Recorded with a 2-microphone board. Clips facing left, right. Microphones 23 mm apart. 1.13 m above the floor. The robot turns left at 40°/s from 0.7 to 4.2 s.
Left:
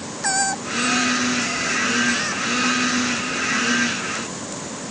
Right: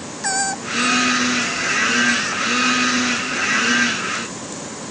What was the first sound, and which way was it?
Only background noise.